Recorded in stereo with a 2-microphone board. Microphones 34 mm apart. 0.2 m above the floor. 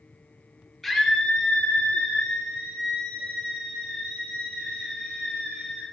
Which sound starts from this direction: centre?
A scream, at 0.8 s.